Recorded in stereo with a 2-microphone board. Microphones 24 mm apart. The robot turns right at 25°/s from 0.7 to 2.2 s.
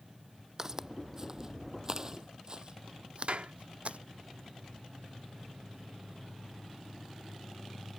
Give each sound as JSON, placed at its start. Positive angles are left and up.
{"t": 0.6, "sound": "footsteps", "side_deg": -25}
{"t": 3.3, "sound": "a clap", "side_deg": -65}